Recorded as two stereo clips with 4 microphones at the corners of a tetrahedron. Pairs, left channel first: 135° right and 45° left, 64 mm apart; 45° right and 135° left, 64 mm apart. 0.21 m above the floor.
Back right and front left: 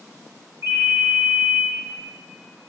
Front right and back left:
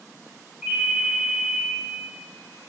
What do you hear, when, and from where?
0.6 s a ringtone: 45° left, 2.0 m